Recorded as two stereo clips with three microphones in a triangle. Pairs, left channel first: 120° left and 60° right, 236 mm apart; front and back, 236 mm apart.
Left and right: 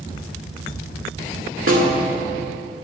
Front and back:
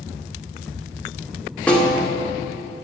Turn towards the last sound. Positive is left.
turn(degrees=-85)